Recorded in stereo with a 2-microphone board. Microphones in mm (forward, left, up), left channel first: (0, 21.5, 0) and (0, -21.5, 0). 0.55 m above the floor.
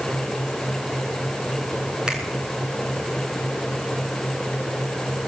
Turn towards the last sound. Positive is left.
turn(degrees=-15)  # may be behind; listen again after turning